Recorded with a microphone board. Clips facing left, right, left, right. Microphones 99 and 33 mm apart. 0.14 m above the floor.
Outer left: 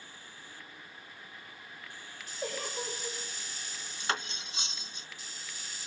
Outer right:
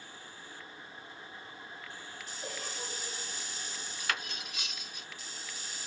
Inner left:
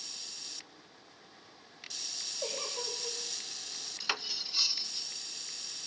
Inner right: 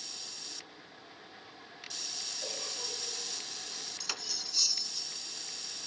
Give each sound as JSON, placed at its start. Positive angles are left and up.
{"t": 2.4, "sound": "a giggle", "side_deg": 70, "distance_m": 9.0}
{"t": 4.0, "sound": "cutlery clinking", "side_deg": 30, "distance_m": 0.7}